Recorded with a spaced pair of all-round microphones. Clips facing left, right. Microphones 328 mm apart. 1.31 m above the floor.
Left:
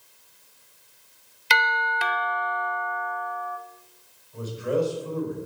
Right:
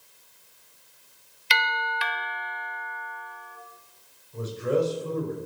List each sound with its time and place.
1.5 s a doorbell: 65° left (ahead or behind), 0.9 m
4.3 s a man speaking: 30° right (ahead or behind), 6 m